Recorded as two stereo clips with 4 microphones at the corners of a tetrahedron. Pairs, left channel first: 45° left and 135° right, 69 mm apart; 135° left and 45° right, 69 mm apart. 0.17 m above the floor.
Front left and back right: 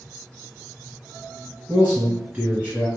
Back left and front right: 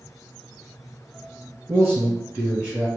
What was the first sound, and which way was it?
A man speaking, 85° right.